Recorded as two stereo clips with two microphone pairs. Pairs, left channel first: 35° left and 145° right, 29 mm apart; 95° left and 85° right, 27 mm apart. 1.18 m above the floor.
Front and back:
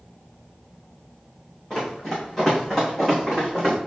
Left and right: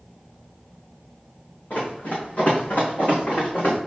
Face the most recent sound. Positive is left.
turn(degrees=115)